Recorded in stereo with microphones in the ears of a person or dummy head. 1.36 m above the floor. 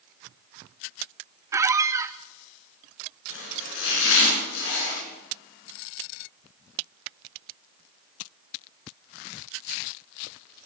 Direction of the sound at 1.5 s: 20° right (ahead or behind).